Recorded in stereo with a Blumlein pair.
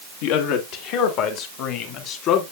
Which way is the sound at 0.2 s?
50° left.